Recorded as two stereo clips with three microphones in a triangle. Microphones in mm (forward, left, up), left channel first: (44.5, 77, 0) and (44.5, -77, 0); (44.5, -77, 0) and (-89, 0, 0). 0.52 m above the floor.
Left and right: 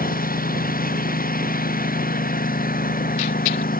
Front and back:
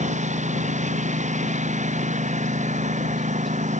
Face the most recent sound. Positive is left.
turn(degrees=110)